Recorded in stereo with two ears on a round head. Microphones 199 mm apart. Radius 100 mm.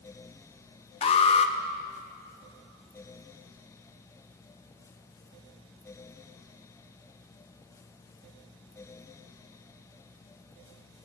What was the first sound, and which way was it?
An alarm, 25° left (ahead or behind).